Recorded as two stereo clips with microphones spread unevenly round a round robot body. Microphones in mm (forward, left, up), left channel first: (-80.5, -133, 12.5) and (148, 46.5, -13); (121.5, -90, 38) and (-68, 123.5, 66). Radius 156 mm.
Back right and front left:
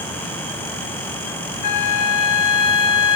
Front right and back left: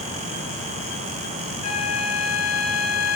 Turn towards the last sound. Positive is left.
turn(degrees=-115)